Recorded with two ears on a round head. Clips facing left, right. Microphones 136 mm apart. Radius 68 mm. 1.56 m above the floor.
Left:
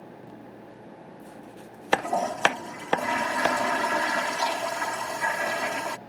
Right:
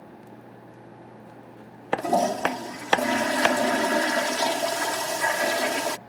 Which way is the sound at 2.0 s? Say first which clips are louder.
Right 3 dB; 40° right (ahead or behind).